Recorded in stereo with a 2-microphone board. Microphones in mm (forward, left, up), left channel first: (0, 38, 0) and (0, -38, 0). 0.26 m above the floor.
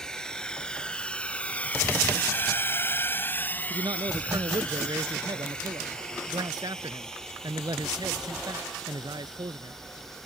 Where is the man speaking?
70° right (ahead or behind).